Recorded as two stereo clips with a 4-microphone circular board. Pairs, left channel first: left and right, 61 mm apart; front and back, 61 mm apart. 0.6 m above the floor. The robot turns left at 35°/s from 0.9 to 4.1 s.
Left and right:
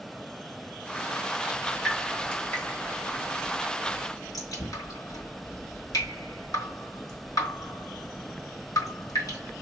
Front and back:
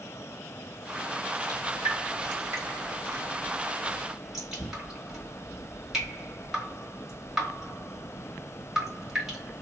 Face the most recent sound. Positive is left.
turn(degrees=100)